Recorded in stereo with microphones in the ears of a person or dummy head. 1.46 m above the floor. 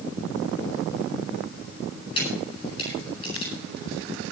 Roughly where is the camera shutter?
Left.